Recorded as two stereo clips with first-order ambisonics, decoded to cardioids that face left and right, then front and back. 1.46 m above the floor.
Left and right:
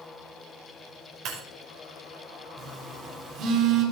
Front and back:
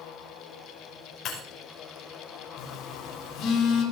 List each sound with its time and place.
1.2 s breaking glass: 55° right, 5.5 m
2.6 s a phone buzzing: 45° right, 4.5 m